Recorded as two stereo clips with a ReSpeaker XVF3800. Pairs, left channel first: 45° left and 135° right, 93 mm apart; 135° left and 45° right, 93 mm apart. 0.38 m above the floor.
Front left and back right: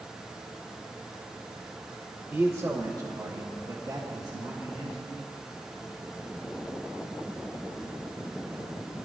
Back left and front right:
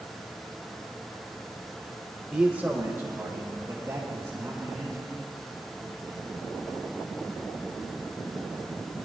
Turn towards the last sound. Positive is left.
turn(degrees=-95)